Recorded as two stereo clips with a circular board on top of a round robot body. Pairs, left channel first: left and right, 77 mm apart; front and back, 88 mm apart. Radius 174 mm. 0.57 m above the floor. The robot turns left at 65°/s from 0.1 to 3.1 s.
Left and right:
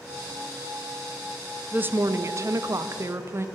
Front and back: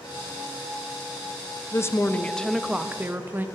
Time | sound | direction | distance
1.7 | a woman speaking | 30° right | 0.6 m